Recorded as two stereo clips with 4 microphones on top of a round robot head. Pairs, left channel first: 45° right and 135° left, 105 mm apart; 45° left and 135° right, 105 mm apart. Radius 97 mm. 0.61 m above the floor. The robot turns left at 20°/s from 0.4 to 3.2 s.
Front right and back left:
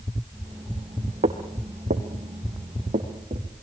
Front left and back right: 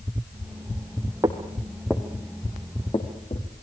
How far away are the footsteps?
About 1.8 m.